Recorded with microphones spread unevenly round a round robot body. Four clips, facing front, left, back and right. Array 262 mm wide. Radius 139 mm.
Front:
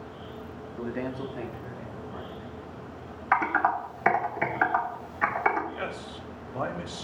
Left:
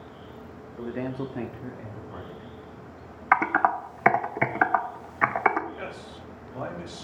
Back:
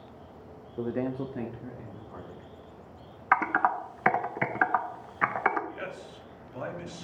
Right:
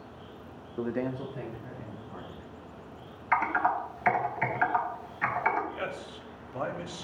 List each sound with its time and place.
0.8 s a man speaking: 105° right, 0.7 m; by 2.5 s 80° left, 2.5 m
3.3 s typing on a keyboard: 85° left, 0.7 m
5.7 s a man speaking: 5° right, 1.5 m